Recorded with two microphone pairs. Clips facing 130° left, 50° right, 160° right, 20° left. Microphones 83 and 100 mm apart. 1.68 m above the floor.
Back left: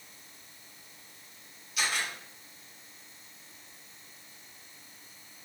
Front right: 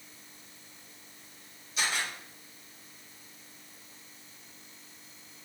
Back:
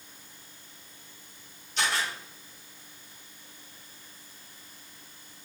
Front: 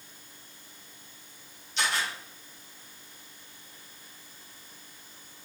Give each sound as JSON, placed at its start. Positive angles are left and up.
{"t": 1.8, "sound": "a camera shutter", "azimuth_deg": -110, "distance_m": 2.0}